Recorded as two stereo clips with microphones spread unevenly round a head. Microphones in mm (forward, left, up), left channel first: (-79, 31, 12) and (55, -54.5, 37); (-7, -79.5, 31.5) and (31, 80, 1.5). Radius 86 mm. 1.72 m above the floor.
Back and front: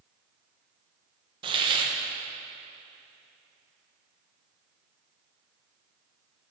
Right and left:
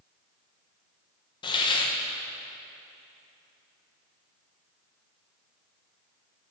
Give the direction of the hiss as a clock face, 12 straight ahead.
2 o'clock.